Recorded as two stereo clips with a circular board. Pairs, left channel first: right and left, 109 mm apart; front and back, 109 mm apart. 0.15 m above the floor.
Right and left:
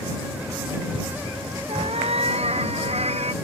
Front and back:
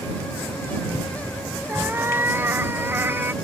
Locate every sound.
1.7 s a cat meowing: 110° left